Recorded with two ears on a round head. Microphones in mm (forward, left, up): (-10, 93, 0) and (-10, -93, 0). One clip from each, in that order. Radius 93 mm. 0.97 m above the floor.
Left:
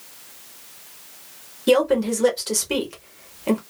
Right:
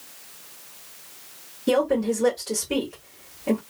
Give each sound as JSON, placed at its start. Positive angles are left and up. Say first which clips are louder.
{"t": 1.7, "sound": "a woman speaking", "louder": "left 4 dB", "side_deg": 35, "distance_m": 1.3}